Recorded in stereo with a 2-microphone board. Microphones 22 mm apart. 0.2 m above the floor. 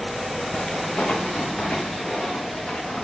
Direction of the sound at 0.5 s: 70° left (ahead or behind).